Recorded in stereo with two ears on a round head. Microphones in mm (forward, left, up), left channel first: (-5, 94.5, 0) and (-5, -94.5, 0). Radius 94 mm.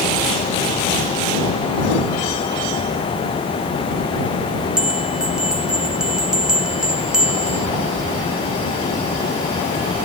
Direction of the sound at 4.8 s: 5° right (ahead or behind).